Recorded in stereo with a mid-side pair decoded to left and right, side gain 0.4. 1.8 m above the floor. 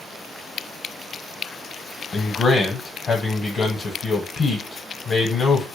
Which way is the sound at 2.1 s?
55° left.